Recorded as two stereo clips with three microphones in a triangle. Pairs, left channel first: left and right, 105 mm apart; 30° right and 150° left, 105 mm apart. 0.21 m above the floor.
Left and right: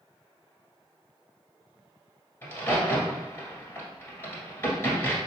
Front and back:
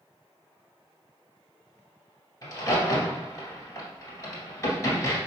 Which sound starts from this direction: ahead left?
A crack, at 2.4 s.